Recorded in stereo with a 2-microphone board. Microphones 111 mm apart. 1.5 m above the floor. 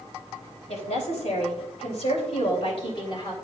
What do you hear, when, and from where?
0.7 s a woman speaking: 75° left (ahead or behind), 3 m; by 3.3 s 40° left (ahead or behind), 3 m